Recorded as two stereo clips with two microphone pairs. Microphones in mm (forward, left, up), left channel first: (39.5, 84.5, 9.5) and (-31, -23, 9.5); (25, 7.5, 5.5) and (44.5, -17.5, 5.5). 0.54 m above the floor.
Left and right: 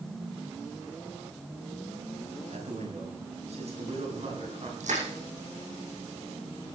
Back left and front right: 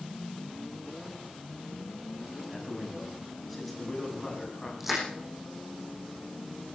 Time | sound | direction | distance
2.5 | a man speaking | 140° right | 5 m
4.8 | crushing | 135° right | 8.5 m